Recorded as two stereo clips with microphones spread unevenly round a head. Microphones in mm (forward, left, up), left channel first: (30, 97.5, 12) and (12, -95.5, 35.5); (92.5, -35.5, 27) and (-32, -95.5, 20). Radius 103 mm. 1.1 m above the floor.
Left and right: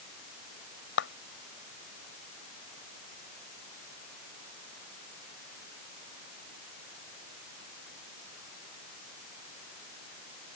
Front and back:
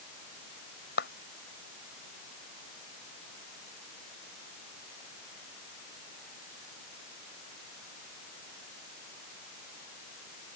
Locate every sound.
1.0 s a clap: 55° left